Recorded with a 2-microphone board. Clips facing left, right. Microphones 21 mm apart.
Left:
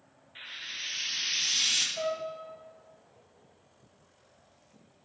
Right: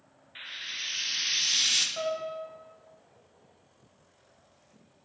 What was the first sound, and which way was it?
Frying, 20° right (ahead or behind).